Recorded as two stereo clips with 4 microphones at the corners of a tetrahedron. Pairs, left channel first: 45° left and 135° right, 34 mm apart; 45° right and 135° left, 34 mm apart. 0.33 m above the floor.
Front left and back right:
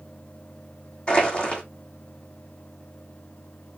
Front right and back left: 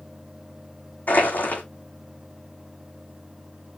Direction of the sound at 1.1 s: 10° right.